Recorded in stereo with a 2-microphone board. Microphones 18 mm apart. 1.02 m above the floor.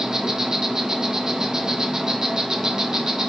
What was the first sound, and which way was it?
An insect, 35° right (ahead or behind).